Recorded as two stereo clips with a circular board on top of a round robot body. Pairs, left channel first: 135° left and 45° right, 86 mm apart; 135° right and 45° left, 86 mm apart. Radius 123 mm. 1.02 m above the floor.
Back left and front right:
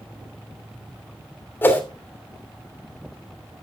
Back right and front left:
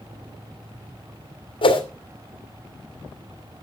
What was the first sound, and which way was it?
A whoosh, 160° right.